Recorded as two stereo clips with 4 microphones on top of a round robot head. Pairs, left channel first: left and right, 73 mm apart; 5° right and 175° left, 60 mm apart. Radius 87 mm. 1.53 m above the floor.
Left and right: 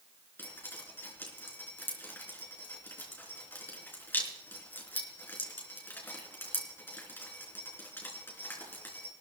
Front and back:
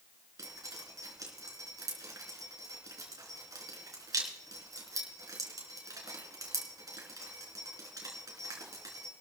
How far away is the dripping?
About 3.5 m.